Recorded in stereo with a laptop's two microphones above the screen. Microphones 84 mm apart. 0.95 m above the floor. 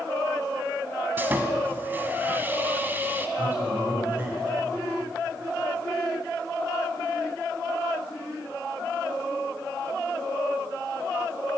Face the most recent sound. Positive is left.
turn(degrees=-25)  # may be behind; listen again after turning